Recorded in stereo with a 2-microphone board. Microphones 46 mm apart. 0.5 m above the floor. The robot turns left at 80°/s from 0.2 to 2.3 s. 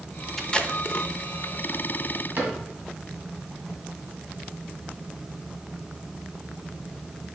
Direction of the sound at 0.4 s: 5° left (ahead or behind).